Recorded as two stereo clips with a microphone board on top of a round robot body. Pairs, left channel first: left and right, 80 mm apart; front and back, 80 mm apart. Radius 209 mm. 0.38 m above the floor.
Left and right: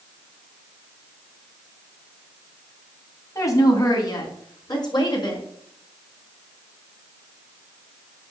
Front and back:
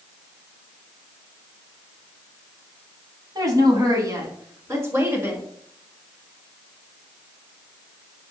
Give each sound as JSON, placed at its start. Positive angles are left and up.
{"t": 3.4, "sound": "a woman speaking", "azimuth_deg": 140, "distance_m": 4.0}